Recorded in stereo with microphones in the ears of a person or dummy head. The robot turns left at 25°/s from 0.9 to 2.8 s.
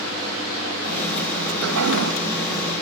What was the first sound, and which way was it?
A toilet flushing, 80° right.